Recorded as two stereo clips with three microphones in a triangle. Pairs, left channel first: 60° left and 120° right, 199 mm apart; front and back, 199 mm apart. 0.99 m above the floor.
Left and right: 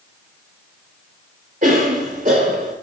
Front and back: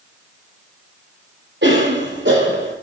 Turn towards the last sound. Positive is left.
turn(degrees=-165)